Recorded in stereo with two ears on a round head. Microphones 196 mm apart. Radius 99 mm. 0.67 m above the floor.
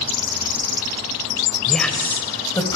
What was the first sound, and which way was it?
A woman speaking, centre (ahead or behind).